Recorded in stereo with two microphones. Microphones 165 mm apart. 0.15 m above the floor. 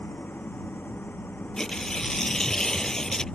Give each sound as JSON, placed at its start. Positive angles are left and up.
{"t": 0.0, "sound": "an engine running", "side_deg": 10}
{"t": 1.6, "sound": "tearing paper", "side_deg": 5}